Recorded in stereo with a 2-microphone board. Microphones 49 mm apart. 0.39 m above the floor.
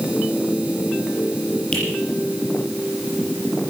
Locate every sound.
1.7 s a finger snap: 25° left (ahead or behind), 10 m